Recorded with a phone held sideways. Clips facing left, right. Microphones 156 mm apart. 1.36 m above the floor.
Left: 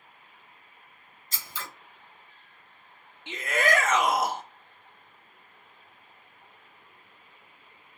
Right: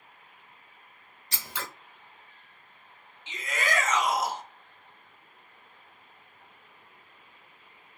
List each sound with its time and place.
1.3 s scissors: 70° right (ahead or behind), 0.6 m
3.3 s a shout: 60° left (ahead or behind), 0.6 m